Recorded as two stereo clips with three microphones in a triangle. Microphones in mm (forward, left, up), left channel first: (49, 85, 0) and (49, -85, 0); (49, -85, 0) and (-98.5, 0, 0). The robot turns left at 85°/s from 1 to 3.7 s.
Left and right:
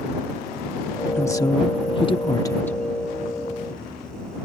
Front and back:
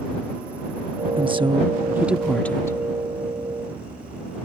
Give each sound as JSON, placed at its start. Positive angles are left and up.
{"t": 1.2, "sound": "a woman speaking", "azimuth_deg": 150}